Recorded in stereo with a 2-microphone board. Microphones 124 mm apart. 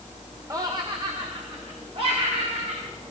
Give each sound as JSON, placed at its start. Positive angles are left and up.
{"t": 0.5, "sound": "laughter", "side_deg": -30, "distance_m": 1.0}